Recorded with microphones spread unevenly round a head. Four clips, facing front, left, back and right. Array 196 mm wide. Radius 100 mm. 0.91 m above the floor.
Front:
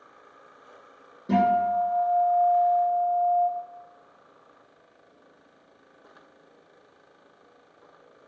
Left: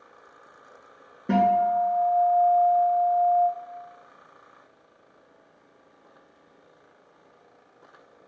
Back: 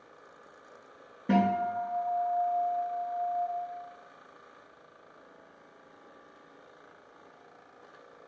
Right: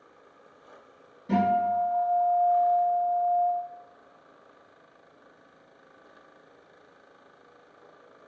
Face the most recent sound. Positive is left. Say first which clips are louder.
# left 3 dB, front 5 dB
turn(degrees=95)